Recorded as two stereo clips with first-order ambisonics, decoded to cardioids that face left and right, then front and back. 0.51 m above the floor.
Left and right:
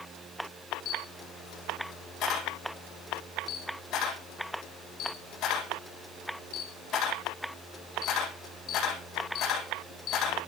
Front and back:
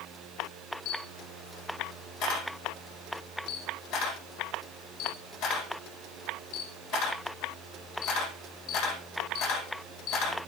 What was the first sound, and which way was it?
A camera shutter, 45° left.